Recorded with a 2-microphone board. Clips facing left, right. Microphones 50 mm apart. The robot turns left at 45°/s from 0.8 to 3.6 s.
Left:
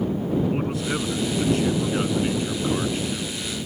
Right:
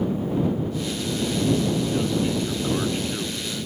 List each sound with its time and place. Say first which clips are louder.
0.5 s a man speaking: left 2 dB; 90° left; by 3.4 s 25° right